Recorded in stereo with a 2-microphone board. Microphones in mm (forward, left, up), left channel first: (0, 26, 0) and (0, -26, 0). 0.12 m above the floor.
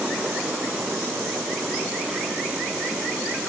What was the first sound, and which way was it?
Only background noise.